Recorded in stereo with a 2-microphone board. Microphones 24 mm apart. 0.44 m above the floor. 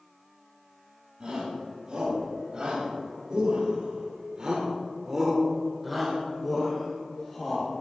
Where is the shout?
40° right (ahead or behind), 4 m; by 7.7 s 15° left (ahead or behind), 3 m.